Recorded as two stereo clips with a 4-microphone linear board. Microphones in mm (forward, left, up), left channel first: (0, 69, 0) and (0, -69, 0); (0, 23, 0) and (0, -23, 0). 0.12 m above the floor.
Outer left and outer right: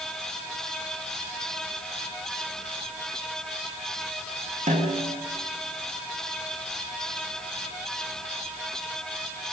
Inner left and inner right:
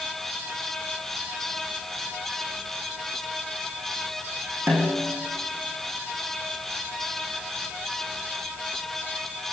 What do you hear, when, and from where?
4.7 s a snare drum: 55° right (ahead or behind), 6 m